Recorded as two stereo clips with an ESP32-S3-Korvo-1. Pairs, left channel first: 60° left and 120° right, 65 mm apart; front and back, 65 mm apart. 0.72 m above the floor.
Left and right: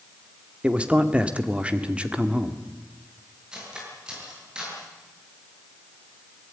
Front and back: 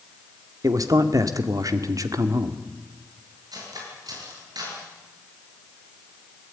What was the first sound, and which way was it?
A man speaking, 170° left.